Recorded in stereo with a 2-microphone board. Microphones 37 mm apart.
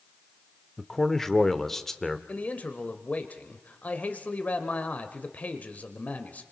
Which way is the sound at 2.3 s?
45° left (ahead or behind).